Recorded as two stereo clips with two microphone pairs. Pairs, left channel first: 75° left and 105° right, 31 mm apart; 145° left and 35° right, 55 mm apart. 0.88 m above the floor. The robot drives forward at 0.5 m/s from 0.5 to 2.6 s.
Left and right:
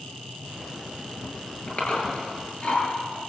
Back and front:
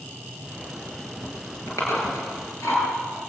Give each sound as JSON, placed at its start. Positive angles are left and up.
{"t": 1.7, "sound": "chewing", "azimuth_deg": 115, "distance_m": 9.5}